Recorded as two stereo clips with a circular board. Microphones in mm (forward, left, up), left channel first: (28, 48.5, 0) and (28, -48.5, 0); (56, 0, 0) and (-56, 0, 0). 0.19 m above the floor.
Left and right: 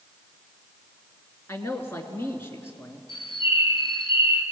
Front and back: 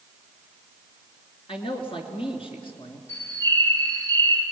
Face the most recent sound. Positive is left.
turn(degrees=65)